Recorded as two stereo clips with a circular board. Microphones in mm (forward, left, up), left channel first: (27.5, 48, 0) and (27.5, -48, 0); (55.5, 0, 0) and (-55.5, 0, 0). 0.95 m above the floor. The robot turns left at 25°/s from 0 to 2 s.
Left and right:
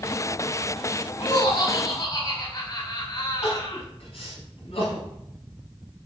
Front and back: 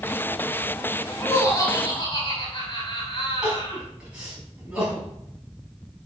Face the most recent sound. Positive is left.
turn(degrees=100)